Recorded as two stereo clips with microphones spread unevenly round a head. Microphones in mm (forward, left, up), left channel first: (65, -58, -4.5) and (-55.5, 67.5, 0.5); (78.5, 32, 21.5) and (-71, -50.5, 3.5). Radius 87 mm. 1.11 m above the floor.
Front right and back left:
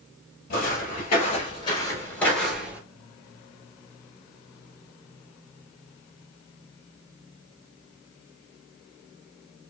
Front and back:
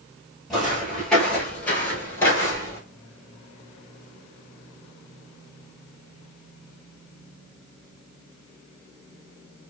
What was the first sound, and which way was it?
Footsteps, 50° right.